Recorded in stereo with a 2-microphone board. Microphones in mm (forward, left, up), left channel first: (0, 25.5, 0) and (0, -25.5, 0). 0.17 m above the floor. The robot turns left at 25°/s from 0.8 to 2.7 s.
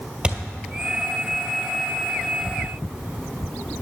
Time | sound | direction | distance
0.2 | a thud | 15° right (ahead or behind) | 1.7 m